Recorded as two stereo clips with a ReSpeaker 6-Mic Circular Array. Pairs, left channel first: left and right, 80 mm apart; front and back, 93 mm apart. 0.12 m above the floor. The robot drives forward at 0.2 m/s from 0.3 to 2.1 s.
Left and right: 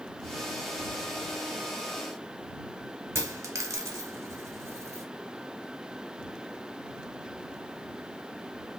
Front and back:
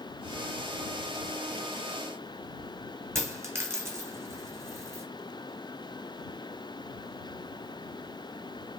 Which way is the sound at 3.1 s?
125° right.